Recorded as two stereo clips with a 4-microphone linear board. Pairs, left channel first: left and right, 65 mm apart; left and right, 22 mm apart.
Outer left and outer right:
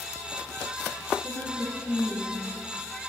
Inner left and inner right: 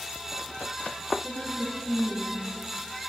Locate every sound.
1.2 s a woman speaking: 15° left (ahead or behind), 1.7 m